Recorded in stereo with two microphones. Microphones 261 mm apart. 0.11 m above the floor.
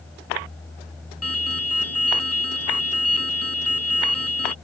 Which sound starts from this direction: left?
An alarm, at 1.2 s.